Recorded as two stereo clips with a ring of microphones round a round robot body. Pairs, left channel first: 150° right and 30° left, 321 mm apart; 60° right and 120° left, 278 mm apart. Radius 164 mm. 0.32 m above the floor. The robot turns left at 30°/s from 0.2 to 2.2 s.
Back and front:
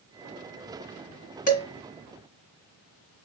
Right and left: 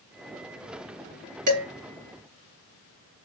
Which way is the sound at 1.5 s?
145° left.